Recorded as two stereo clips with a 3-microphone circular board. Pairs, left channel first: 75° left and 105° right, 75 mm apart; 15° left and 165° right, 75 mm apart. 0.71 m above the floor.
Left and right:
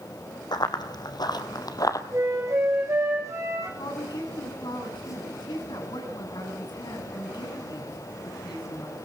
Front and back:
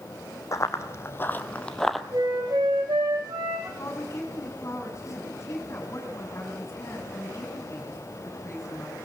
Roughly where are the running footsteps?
Ahead left.